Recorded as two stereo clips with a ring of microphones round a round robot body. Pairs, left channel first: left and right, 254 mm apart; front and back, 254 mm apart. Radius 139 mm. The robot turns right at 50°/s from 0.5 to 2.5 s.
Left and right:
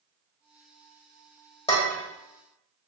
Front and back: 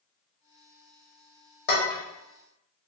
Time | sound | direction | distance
1.7 | dishes clattering | 30° left | 1.1 m